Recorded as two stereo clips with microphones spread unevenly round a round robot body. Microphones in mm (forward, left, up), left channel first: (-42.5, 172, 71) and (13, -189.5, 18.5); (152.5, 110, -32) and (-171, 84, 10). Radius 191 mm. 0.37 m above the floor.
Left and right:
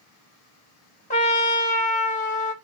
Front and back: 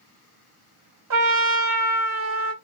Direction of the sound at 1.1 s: 170° left.